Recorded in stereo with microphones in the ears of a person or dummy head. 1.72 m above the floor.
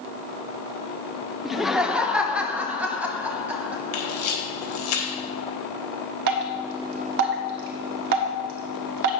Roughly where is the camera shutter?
Left.